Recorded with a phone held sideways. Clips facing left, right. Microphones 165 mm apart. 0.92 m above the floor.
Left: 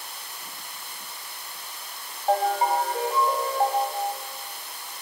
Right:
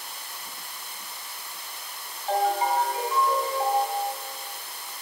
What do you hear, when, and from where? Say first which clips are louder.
2.3 s a ringtone: left 1 dB; 45° left (ahead or behind), 1.9 m